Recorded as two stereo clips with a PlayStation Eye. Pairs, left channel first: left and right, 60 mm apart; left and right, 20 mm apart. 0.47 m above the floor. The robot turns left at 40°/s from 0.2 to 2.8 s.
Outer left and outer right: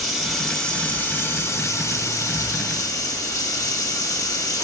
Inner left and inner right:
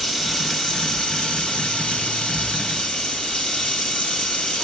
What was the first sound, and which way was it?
Running water, straight behind.